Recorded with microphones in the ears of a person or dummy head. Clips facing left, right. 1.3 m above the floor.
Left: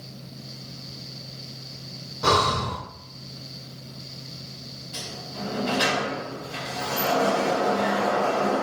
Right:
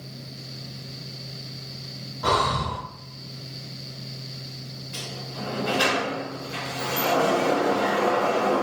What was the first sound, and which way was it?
Breathing, 30° left (ahead or behind).